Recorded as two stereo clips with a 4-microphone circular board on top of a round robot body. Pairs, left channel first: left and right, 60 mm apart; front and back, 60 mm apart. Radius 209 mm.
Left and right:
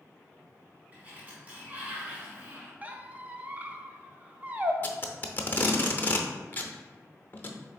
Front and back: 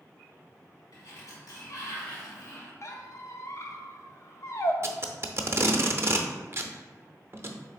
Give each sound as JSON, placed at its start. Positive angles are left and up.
{"t": 0.9, "sound": "a sliding door", "azimuth_deg": -25, "distance_m": 0.8}
{"t": 2.8, "sound": "a squeak", "azimuth_deg": -30, "distance_m": 0.7}
{"t": 4.8, "sound": "tape being pulled", "azimuth_deg": 140, "distance_m": 0.7}